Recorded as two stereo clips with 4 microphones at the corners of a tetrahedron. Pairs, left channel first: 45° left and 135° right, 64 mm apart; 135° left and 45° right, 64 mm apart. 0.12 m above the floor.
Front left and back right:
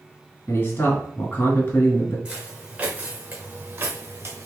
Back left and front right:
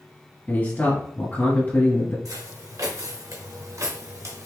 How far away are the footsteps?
About 2.5 m.